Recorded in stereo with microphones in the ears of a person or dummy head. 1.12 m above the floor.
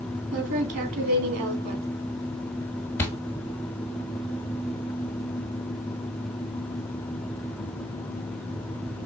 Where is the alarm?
I don't hear an alarm.